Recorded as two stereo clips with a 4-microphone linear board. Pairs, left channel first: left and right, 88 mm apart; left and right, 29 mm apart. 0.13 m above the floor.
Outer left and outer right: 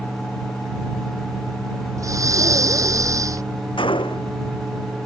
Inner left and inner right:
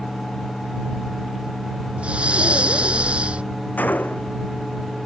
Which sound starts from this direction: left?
A gunshot, at 3.8 s.